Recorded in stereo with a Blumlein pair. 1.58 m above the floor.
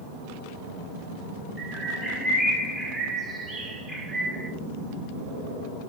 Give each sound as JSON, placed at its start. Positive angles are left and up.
{"t": 1.6, "sound": "a bird", "azimuth_deg": -10, "distance_m": 2.0}